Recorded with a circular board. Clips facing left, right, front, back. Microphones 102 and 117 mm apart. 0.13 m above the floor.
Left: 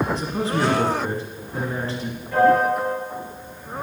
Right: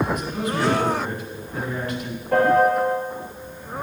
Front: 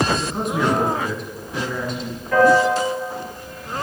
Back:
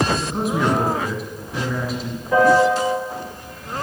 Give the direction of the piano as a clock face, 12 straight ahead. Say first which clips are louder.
Even, even; 4 o'clock.